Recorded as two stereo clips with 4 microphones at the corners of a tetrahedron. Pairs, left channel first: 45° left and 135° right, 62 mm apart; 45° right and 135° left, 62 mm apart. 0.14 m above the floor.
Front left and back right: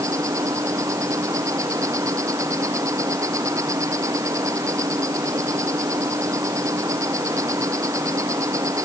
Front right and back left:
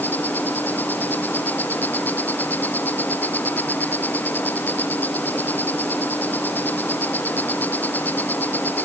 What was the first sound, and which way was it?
An insect, 105° right.